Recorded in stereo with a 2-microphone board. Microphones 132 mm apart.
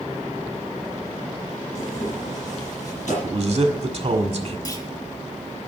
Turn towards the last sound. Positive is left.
turn(degrees=30)  # may be behind; listen again after turning